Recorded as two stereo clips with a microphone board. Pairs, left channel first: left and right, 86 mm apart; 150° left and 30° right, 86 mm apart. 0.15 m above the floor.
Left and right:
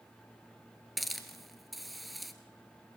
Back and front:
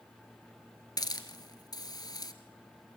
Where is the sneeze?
I don't hear a sneeze.